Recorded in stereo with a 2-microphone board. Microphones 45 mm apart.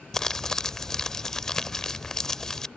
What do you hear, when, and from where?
0.1 s crumpling: 15° left (ahead or behind)